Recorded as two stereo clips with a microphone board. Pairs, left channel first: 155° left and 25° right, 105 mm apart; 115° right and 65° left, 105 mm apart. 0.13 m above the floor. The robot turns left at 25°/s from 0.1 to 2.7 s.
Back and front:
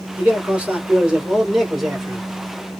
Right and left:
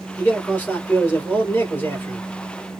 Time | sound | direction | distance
0.2 | a man speaking | 65° right | 1.7 m